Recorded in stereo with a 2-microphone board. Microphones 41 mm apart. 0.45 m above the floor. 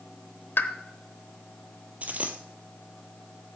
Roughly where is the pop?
Left.